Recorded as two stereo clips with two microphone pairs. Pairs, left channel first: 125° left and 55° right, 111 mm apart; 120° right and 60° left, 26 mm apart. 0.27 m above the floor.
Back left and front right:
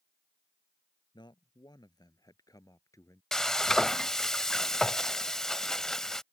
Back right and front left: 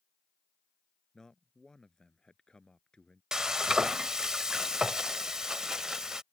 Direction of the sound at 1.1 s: 170° left.